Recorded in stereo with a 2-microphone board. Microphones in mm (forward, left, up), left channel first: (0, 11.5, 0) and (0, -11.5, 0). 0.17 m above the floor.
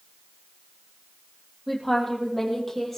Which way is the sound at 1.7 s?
5° left (ahead or behind).